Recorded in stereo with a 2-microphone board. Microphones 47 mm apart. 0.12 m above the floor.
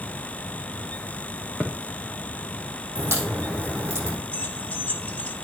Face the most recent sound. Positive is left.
turn(degrees=25)  # may be behind; listen again after turning